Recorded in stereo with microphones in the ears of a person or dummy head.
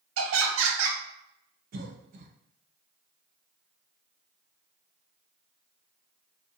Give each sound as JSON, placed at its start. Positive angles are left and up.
{"t": 0.2, "sound": "laughter", "side_deg": -80, "distance_m": 0.7}
{"t": 1.7, "sound": "a cough", "side_deg": -50, "distance_m": 0.6}